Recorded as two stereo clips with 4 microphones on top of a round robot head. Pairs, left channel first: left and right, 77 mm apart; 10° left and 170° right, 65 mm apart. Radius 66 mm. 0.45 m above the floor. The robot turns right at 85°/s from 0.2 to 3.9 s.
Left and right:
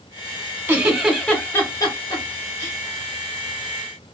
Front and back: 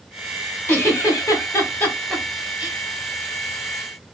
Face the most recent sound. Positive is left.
turn(degrees=-120)